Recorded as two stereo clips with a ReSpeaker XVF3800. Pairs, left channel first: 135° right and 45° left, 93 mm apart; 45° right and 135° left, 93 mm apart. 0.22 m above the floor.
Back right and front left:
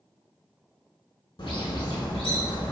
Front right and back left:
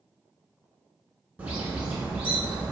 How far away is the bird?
About 0.6 m.